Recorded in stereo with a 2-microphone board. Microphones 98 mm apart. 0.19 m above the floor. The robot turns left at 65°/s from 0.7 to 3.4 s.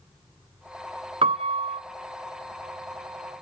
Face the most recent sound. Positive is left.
turn(degrees=140)